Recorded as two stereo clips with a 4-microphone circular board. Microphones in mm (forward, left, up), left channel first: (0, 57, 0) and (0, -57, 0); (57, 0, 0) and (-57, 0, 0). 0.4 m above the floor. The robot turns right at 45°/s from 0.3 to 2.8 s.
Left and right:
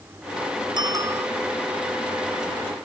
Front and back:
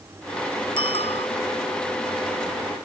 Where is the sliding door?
I don't hear a sliding door.